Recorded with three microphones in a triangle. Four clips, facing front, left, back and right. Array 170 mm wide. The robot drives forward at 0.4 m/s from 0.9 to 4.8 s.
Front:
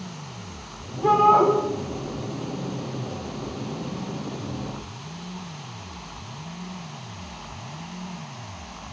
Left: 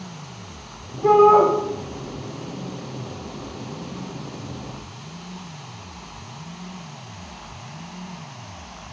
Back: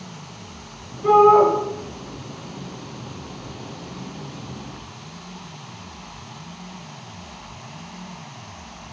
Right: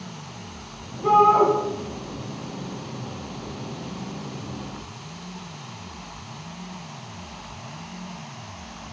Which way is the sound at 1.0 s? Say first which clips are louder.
Left 3 dB, back 4 dB; 40° left.